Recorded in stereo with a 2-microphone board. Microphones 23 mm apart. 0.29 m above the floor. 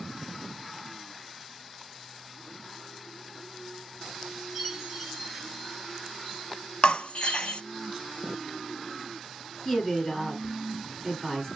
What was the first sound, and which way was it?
A chime, 10° right (ahead or behind).